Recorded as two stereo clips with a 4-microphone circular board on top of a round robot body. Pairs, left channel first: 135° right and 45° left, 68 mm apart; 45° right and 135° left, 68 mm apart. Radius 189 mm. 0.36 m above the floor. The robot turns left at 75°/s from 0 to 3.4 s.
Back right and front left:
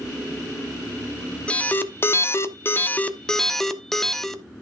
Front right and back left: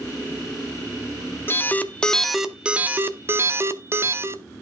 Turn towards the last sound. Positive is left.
turn(degrees=145)